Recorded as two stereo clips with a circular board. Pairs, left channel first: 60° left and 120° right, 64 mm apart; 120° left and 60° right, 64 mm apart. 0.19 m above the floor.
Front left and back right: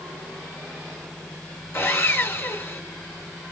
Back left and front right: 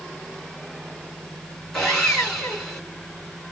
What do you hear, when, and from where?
1.7 s sawing: 45° left, 1.9 m